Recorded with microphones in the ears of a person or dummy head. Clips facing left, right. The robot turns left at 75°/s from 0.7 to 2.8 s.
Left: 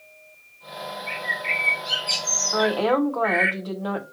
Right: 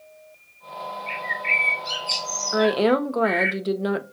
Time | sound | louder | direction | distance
1.1 | a bird | even | 130° right | 1.4 m
2.5 | a woman speaking | right 2 dB | 15° right (ahead or behind) | 0.5 m